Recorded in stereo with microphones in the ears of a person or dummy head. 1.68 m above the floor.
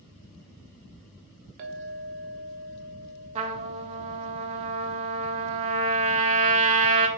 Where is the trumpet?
35° right (ahead or behind), 0.7 m.